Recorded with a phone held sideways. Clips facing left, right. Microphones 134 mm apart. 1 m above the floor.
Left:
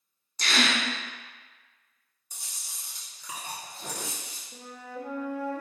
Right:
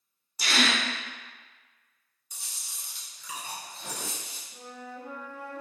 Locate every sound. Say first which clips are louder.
0.4 s a gasp: even; 10° right (ahead or behind), 0.6 m
2.3 s chewing: even; 40° left (ahead or behind), 1.0 m
4.5 s a flute: left 2 dB; 80° left, 0.8 m